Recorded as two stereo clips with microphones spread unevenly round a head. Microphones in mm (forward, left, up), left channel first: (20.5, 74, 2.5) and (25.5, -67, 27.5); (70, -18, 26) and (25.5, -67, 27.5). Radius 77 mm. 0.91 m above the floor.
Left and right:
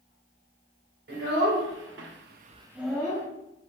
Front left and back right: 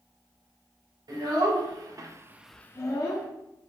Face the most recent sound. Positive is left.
turn(degrees=20)